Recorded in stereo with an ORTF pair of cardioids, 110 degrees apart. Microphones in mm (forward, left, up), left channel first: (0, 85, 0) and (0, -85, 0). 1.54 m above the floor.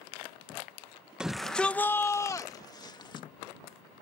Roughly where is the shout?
Ahead.